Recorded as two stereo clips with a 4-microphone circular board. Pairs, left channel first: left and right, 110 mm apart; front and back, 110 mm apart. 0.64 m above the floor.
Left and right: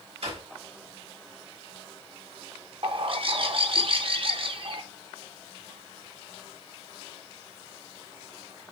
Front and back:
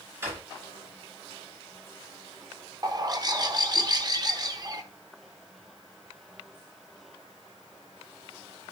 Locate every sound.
0.2 s a drawer: 115° right, 5 m
2.8 s a bird: 125° right, 0.7 m